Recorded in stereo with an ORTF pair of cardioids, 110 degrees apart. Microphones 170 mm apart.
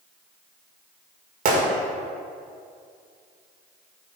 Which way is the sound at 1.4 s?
60° right.